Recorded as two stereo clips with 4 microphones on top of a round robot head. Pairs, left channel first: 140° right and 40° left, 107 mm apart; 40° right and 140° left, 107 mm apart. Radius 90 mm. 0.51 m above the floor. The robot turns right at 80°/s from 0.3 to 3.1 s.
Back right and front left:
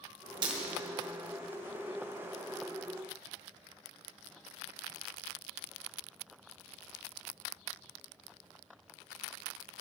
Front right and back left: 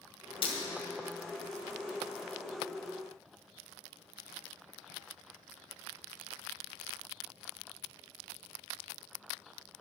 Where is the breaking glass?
5° right, 2 m; by 0.6 s 5° left, 2 m.